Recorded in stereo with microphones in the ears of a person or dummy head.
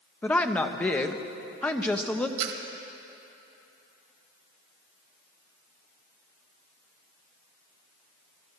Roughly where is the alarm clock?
I don't hear an alarm clock.